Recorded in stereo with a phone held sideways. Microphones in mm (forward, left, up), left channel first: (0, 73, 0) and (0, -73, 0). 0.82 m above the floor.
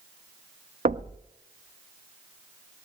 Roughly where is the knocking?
Right.